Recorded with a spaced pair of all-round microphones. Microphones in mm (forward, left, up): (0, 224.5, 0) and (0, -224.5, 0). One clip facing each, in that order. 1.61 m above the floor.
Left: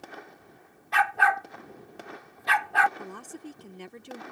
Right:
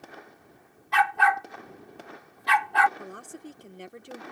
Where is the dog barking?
20° right (ahead or behind).